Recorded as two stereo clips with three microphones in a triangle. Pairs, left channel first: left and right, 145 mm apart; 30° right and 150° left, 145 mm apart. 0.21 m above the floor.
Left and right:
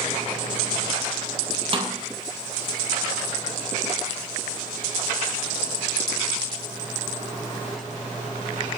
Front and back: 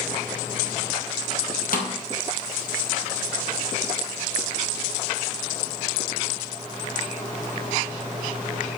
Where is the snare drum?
40° right, 1.8 m.